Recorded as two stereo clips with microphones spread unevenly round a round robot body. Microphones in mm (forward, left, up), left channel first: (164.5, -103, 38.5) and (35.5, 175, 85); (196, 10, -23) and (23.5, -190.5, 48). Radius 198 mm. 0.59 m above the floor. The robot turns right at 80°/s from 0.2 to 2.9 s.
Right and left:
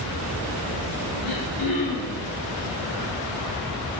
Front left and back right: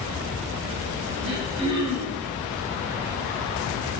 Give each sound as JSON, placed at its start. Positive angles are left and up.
{"t": 1.2, "sound": "throat clearing", "azimuth_deg": -90, "distance_m": 6.5}